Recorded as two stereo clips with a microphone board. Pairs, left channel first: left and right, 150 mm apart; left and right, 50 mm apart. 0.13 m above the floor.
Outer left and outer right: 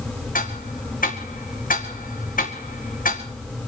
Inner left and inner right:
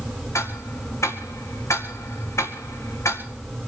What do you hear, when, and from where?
0.3 s ticking: 65° left (ahead or behind), 2 m